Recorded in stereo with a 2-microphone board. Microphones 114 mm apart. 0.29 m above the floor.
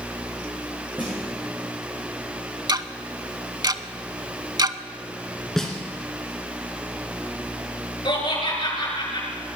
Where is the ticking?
35° right (ahead or behind), 0.5 m.